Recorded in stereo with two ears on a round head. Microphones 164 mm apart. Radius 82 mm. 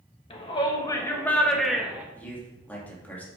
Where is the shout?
30° left (ahead or behind), 1.8 m; by 2.0 s 10° right (ahead or behind), 1.6 m.